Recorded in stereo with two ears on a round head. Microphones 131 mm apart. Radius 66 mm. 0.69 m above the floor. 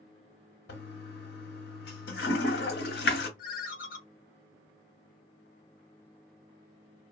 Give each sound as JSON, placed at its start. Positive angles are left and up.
{"t": 0.7, "sound": "a toilet flushing", "side_deg": 85, "distance_m": 1.0}
{"t": 3.4, "sound": "a ringtone", "side_deg": 60, "distance_m": 0.9}